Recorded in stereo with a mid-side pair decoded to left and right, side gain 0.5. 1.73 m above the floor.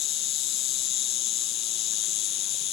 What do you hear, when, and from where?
0.0 s an insect: 70° left